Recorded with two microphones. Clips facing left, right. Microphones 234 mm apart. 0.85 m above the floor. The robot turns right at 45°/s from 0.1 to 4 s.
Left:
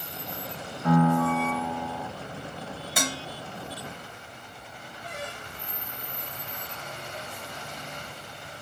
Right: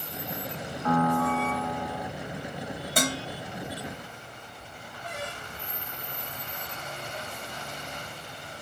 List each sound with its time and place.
0.8 s a piano: 140° left, 1.3 m; by 2.1 s 165° right, 1.3 m
3.0 s dishes clattering: 50° right (ahead or behind), 2.5 m; by 3.2 s 60° right (ahead or behind), 2.5 m